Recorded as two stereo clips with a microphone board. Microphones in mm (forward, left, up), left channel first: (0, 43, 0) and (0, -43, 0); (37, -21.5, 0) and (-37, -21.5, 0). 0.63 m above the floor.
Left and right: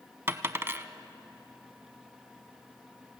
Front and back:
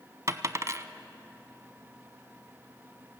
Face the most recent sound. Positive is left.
turn(degrees=-145)